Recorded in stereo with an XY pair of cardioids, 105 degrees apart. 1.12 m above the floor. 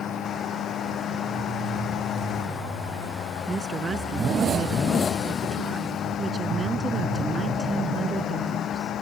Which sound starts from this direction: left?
A fan, at 0.0 s.